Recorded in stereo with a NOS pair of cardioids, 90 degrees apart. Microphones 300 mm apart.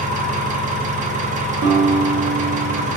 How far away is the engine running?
About 0.8 m.